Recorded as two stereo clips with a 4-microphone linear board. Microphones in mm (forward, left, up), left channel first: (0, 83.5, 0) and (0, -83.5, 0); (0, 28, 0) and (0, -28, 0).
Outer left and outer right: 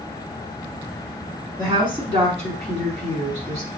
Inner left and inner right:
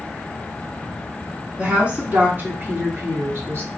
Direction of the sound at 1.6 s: 25° right (ahead or behind).